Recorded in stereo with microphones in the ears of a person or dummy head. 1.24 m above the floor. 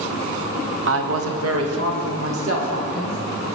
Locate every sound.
0.9 s a woman speaking: 60° right (ahead or behind), 1.0 m; by 3.2 s 80° right, 4 m